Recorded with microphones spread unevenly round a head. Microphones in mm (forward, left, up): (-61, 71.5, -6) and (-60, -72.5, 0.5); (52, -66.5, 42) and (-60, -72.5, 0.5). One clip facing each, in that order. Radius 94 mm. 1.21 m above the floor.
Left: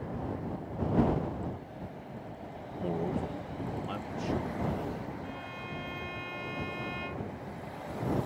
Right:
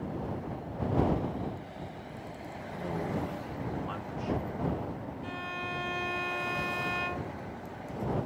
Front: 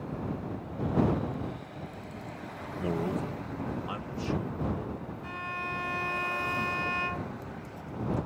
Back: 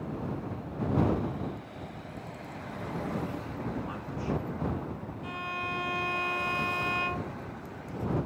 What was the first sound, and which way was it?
A man speaking, 25° left.